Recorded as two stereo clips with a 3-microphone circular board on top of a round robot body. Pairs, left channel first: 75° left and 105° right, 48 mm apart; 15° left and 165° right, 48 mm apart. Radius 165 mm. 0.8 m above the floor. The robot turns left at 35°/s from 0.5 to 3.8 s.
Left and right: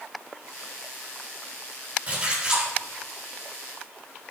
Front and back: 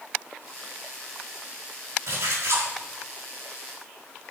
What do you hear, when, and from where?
2.1 s a splash: 160° right, 4.5 m; by 2.7 s 175° left, 4.5 m